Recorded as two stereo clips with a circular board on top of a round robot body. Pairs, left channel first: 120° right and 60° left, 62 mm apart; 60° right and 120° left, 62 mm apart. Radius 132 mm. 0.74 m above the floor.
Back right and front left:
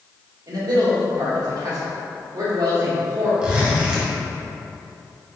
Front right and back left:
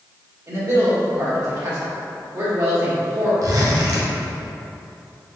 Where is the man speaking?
85° left, 1.8 m.